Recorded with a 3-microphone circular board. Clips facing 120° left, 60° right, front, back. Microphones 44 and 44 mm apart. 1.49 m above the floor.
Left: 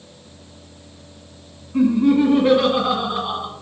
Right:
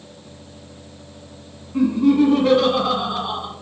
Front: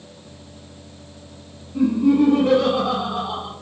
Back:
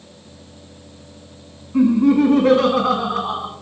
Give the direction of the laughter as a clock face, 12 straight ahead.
5 o'clock.